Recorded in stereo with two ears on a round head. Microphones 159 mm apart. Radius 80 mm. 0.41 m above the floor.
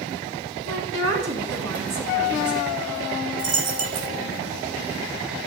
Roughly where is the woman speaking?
Right.